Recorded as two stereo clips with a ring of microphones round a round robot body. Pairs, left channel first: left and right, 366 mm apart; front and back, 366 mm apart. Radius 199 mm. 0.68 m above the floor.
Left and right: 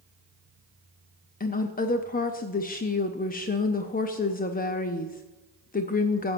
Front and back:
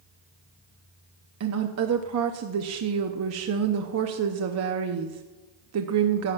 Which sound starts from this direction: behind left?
A woman speaking, at 1.4 s.